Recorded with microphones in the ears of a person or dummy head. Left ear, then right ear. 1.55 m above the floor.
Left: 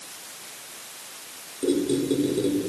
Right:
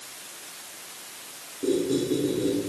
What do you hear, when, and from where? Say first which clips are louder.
1.6 s a squeak: left 1 dB; 45° left (ahead or behind), 1.9 m